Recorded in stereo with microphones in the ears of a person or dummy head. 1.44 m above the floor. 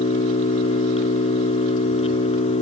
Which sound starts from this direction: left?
An engine running, at 0.0 s.